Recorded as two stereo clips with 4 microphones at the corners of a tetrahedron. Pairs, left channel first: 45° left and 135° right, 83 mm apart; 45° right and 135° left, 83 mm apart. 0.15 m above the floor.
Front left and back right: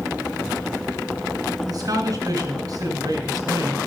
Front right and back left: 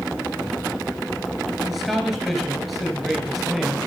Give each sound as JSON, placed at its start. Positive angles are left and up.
{"t": 1.7, "sound": "a man speaking", "azimuth_deg": -135, "distance_m": 2.0}